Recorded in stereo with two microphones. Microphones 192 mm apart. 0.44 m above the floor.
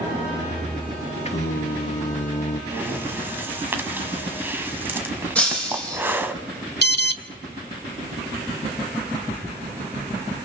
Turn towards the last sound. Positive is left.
turn(degrees=60)  # may be behind; listen again after turning